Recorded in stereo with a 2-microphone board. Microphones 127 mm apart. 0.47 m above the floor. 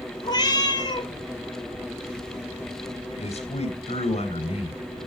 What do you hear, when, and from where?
0.2 s a cat meowing: 35° left (ahead or behind), 1.6 m
3.2 s a man speaking: 55° left (ahead or behind), 2.5 m